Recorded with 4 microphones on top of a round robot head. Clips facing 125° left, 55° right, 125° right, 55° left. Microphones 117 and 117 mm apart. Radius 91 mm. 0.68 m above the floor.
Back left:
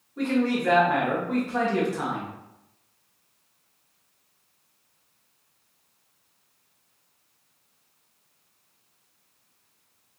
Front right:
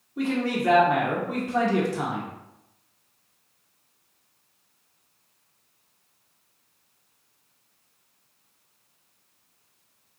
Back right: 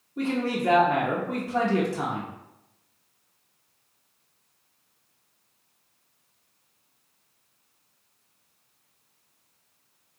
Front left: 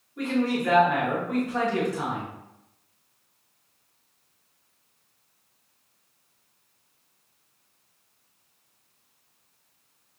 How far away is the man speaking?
About 1.3 m.